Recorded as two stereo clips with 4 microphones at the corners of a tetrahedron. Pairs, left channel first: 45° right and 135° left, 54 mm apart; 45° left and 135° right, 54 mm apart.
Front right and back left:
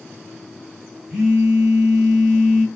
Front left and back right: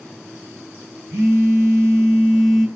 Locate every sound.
1.1 s a phone buzzing: 150° right, 2.5 m